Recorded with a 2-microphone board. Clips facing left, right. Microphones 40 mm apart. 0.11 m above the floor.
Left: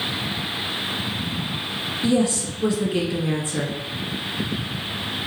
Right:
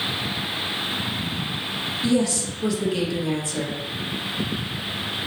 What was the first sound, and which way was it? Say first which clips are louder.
A woman speaking: left 2 dB; 25° left (ahead or behind).